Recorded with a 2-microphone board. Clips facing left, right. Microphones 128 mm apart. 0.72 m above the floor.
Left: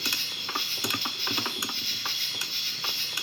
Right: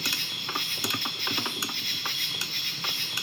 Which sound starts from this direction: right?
An insect, at 0.0 s.